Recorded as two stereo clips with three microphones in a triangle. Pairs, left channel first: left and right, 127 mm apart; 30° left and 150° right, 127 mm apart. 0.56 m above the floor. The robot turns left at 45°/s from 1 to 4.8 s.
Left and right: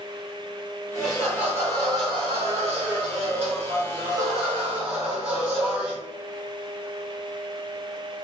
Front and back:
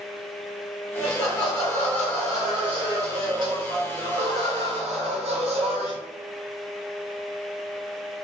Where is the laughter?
Straight ahead, 1.5 m; by 6.0 s 170° right, 1.5 m.